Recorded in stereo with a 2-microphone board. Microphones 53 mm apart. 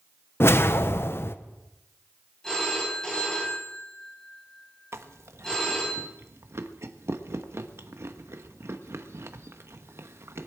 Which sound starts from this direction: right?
Chewing, at 4.9 s.